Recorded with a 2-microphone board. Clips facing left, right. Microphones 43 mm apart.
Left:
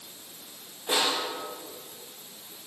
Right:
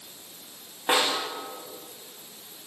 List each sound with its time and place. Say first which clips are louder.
0.9 s a snare drum: right 3 dB; 50° right (ahead or behind), 10 m